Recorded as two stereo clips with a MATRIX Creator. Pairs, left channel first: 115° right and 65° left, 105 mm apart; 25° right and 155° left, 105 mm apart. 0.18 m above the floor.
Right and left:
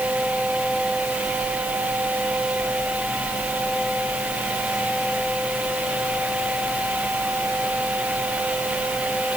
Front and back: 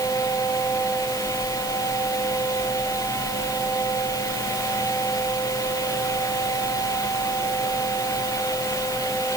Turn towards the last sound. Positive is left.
No sound to turn to.